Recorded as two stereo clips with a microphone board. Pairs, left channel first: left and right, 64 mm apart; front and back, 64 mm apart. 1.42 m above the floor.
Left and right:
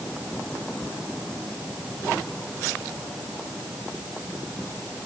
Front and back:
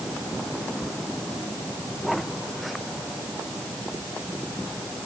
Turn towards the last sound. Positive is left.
No sound to turn to.